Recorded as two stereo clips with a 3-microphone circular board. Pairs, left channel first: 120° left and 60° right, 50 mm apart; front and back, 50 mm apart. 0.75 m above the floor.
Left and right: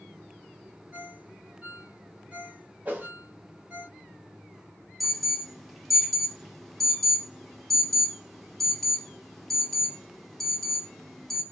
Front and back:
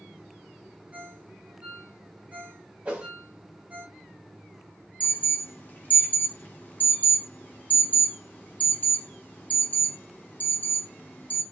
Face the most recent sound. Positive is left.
turn(degrees=30)